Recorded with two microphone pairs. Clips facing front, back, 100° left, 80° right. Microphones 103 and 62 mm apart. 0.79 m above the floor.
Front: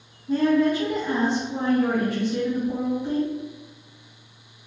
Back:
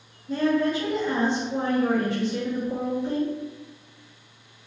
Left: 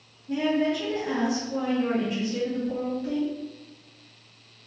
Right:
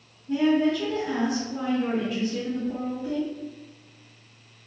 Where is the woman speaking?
30° left, 1.5 m.